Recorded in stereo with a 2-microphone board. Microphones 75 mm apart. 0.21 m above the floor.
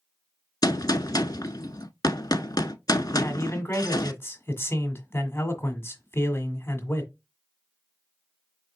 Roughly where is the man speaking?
Left.